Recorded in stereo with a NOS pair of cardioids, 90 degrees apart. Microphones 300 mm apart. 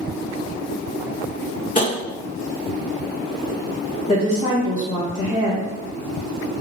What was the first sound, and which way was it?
Tapping, 25° left.